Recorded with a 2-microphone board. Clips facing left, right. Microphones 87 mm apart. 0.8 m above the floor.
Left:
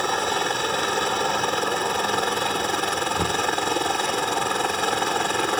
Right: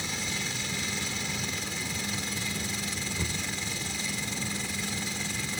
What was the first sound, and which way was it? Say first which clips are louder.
A helicopter: left 13 dB; 55° left (ahead or behind).